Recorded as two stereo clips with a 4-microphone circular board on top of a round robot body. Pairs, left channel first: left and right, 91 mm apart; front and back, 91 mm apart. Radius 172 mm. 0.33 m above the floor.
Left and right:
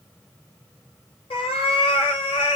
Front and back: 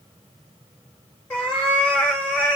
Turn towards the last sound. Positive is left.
turn(degrees=75)